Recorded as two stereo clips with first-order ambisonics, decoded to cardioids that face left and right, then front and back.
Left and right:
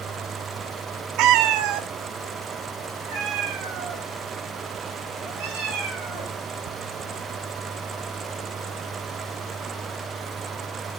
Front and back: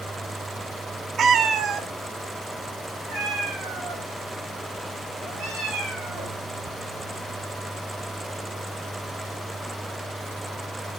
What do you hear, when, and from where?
1.2 s a cat meowing: 120° right, 0.5 m